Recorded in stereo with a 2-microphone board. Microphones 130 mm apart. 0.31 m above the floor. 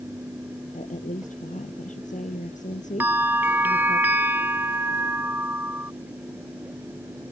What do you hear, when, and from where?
0.7 s a woman speaking: 80° left
3.0 s a bell: 15° right (ahead or behind)